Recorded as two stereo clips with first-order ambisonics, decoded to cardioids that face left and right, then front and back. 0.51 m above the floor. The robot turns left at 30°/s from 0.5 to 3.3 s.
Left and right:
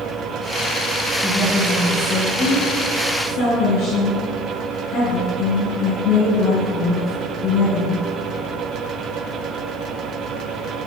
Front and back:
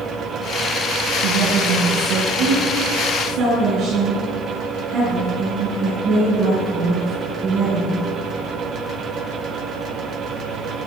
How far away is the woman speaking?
About 8 m.